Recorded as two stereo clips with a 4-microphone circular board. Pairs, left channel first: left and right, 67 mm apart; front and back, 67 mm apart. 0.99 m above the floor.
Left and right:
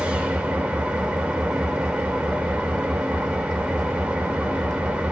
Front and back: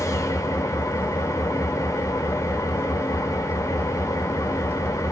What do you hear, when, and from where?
0.0 s an engine running: 20° right, 0.9 m